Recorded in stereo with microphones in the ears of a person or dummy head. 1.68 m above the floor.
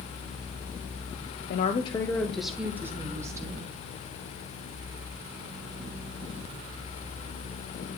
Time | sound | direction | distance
1.5 | a woman speaking | 55° left (ahead or behind) | 0.6 m